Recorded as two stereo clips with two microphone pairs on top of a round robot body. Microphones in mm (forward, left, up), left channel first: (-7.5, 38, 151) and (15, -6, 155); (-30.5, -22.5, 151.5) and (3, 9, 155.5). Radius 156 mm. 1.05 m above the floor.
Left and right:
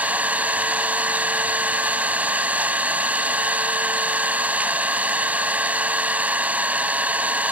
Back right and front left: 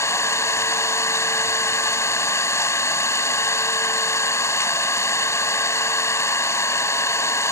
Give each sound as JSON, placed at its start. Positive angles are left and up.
{"t": 0.0, "sound": "an engine running", "azimuth_deg": -125}